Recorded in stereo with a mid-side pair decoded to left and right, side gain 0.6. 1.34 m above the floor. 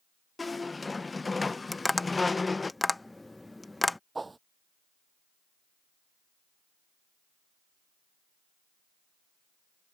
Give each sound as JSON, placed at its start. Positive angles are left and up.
{"t": 0.4, "sound": "a squeak", "azimuth_deg": 20}
{"t": 1.7, "sound": "tapping", "azimuth_deg": 10}
{"t": 4.2, "sound": "a whoosh", "azimuth_deg": -15}